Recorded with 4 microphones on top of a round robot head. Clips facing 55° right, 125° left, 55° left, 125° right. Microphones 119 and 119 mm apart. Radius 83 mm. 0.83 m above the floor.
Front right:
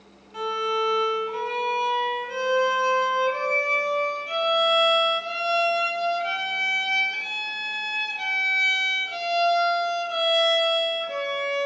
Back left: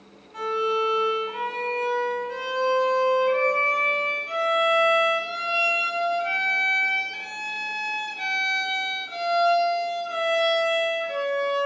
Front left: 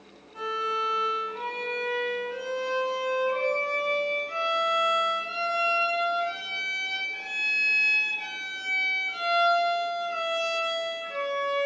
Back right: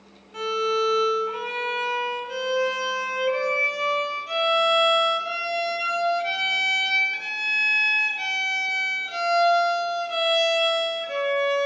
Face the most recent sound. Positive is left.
turn(degrees=-140)